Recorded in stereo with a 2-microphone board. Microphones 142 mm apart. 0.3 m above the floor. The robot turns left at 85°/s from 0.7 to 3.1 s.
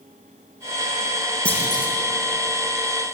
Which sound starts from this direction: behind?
A clunk, at 1.4 s.